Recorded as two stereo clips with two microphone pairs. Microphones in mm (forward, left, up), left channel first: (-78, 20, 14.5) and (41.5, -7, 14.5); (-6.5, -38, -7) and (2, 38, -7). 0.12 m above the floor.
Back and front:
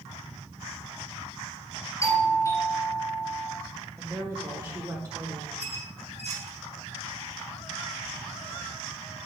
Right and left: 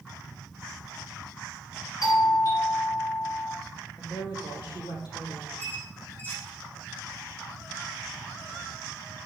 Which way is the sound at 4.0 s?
75° right.